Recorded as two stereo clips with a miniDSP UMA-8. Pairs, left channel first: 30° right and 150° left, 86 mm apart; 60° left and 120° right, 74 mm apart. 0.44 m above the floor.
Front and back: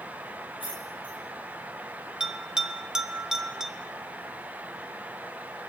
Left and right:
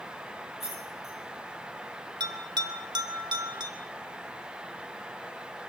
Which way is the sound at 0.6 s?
30° right.